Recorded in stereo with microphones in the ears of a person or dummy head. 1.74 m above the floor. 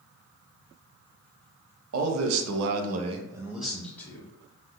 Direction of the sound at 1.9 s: 85° right.